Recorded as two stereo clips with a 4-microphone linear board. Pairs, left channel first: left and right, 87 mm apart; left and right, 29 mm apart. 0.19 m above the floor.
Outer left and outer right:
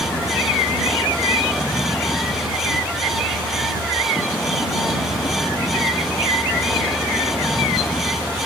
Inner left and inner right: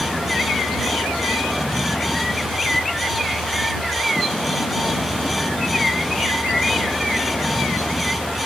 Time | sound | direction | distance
0.0 | a vehicle | 20° left (ahead or behind) | ?